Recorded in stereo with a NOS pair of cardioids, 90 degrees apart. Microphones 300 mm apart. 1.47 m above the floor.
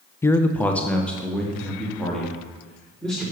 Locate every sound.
0.2 s a man speaking: 10° left, 0.5 m; by 3.2 s straight ahead, 4 m